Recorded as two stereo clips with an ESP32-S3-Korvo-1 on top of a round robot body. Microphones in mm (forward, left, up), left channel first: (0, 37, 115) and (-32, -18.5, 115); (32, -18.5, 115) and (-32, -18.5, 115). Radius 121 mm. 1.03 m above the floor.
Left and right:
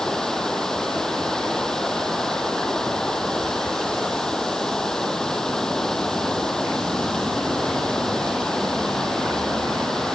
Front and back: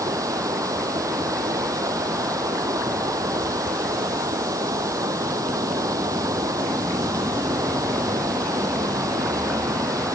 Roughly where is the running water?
Behind left.